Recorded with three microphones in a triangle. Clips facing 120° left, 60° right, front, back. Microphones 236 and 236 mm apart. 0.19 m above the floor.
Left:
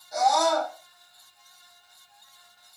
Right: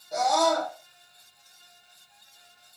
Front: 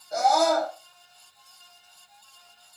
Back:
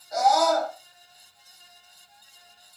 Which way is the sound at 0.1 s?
55° right.